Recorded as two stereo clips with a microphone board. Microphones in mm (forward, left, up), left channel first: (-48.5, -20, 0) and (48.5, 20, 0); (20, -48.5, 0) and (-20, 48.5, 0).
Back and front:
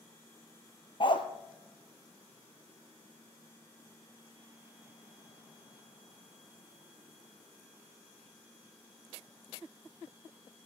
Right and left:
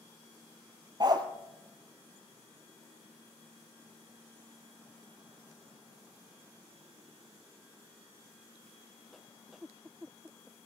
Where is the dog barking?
165° left, 1.0 m.